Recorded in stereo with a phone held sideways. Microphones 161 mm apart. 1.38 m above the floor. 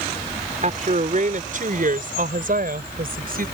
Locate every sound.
0.6 s a woman speaking: 50° right (ahead or behind); by 3.5 s 65° right (ahead or behind)